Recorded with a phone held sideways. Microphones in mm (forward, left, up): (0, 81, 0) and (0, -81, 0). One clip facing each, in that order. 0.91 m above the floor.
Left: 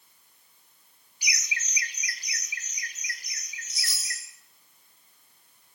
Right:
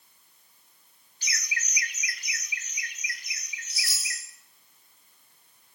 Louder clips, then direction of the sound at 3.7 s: Right 1 dB; 20° left (ahead or behind).